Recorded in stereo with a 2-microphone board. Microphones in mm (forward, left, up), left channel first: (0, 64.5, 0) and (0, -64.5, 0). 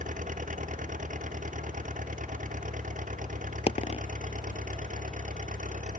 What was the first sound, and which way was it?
An engine running, 85° right.